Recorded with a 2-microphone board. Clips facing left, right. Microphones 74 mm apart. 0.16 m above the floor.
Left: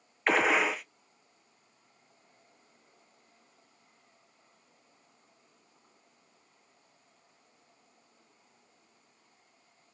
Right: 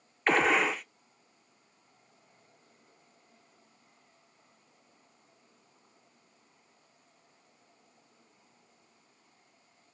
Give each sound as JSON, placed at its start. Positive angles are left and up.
{"t": 0.3, "sound": "a gunshot", "side_deg": 5, "distance_m": 0.6}